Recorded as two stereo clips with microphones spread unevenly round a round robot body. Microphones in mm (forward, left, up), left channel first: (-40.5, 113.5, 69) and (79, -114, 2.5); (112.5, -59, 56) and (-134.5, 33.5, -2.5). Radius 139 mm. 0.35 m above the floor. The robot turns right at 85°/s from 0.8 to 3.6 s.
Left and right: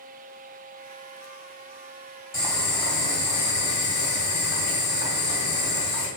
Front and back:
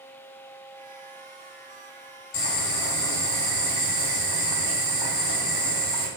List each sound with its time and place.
2.3 s boiling: 15° left, 2.5 m; by 6.1 s 125° left, 2.5 m